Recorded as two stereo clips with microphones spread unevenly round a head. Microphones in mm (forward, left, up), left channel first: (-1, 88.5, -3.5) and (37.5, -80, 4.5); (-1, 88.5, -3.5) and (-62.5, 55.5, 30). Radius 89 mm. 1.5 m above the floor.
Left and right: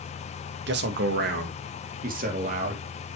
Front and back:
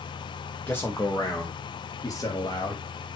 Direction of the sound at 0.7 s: 55° right.